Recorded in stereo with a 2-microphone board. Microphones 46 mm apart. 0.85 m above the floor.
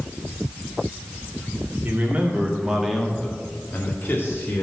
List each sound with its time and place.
1.8 s a man speaking: 40° right (ahead or behind), 2.5 m; by 4.6 s 65° left (ahead or behind), 2.5 m